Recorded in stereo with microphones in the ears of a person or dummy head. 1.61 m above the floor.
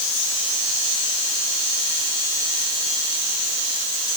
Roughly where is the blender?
I don't hear a blender.